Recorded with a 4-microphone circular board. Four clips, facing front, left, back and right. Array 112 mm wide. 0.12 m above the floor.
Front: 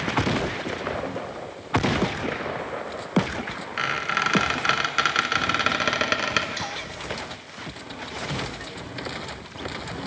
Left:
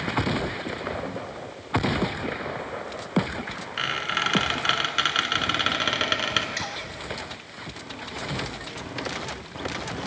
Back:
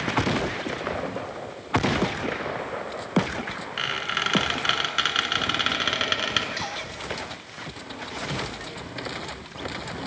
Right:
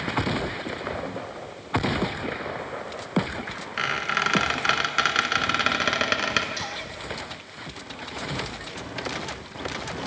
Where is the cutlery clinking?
95° left, 1.4 m.